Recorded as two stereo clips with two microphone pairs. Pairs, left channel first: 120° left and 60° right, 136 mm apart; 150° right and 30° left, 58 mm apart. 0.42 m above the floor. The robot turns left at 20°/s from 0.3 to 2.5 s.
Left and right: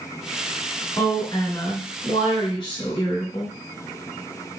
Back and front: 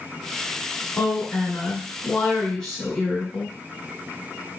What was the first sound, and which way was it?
A woman speaking, 165° left.